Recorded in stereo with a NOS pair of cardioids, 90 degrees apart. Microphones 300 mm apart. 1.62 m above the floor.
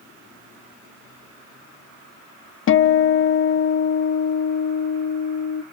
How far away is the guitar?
About 0.8 m.